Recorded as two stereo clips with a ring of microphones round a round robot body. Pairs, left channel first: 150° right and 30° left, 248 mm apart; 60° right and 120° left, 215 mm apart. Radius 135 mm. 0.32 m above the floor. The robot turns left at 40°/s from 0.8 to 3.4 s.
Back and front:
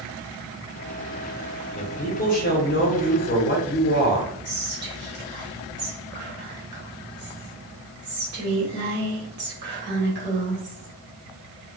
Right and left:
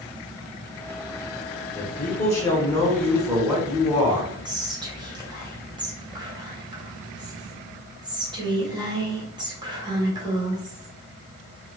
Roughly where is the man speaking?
Right.